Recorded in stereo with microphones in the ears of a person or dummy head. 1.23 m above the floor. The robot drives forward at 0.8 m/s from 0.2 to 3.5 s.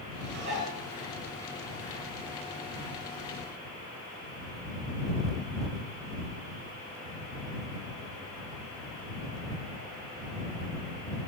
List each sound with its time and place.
0.2 s dishes clattering: 50° right (ahead or behind), 9.5 m